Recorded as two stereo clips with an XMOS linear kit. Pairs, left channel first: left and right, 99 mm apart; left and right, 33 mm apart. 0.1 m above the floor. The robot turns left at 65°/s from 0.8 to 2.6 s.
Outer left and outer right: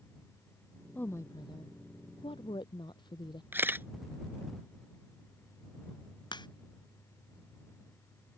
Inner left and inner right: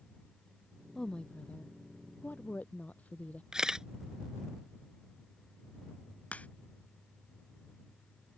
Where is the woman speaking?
165° left; by 3.4 s 55° left.